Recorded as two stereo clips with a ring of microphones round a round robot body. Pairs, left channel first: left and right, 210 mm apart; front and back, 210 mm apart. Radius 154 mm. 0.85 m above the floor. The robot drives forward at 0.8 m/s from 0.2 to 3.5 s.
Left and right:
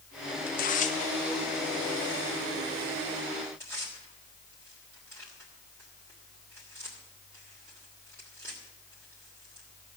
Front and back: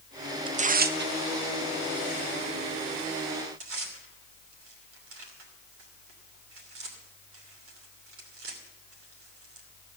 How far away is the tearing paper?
About 0.6 m.